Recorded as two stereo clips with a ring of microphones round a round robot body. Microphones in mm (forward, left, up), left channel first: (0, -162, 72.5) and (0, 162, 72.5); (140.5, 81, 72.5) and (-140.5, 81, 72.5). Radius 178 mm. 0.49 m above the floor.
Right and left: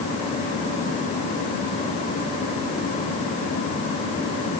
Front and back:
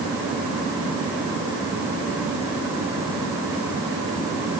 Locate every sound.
Only background noise.